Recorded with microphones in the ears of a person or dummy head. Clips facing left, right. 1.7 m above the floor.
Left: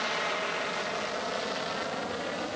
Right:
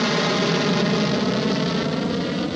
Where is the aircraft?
60° right (ahead or behind); by 2.6 s 50° right (ahead or behind).